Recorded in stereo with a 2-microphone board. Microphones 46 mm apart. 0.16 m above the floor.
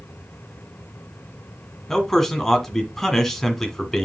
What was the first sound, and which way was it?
A man speaking, 10° left (ahead or behind).